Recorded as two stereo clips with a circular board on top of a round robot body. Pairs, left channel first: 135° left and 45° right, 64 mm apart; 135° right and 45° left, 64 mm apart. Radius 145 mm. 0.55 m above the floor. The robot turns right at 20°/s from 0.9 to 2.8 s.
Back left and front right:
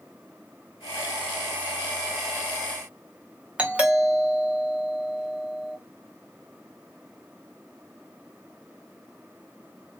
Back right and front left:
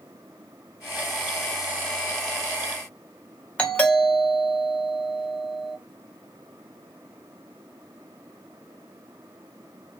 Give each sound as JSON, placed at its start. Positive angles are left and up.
{"t": 3.6, "sound": "a doorbell", "azimuth_deg": -90, "distance_m": 1.6}